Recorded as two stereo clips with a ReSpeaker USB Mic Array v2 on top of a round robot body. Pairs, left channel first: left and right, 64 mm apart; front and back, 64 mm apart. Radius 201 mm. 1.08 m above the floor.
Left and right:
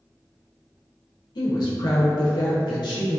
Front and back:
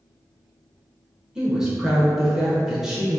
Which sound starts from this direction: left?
A woman speaking, at 1.4 s.